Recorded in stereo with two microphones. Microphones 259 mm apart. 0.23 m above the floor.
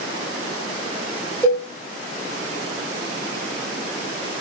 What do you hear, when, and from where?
1.4 s a cowbell: 10° left (ahead or behind), 1.2 m